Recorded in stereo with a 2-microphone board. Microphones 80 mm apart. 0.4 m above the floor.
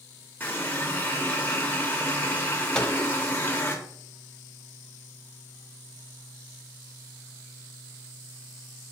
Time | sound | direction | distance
0.4 | a running tap | 25° left (ahead or behind) | 0.8 m
2.8 | a microwave | 10° left (ahead or behind) | 0.6 m